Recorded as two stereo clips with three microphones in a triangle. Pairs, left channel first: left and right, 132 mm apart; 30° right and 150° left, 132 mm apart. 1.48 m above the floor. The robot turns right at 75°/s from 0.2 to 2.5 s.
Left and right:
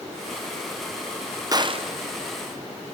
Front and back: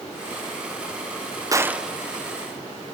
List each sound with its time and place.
1.5 s a gunshot: 145° right, 0.6 m; by 1.9 s 120° right, 0.6 m